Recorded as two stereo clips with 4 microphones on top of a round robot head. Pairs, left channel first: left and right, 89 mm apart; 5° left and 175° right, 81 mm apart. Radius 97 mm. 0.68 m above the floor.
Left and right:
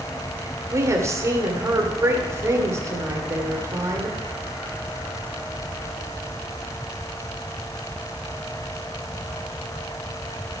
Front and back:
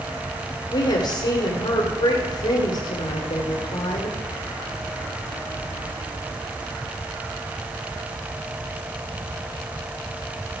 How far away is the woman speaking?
About 2 m.